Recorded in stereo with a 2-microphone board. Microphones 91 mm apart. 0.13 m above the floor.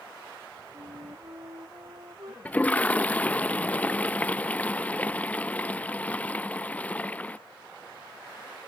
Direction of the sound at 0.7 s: 50° right (ahead or behind).